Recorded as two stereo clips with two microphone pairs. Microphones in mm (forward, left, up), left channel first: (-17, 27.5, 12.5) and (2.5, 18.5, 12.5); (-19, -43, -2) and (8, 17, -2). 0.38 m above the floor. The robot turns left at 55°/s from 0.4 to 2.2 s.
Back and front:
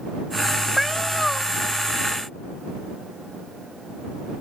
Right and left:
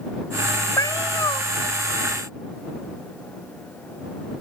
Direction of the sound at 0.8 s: 105° right.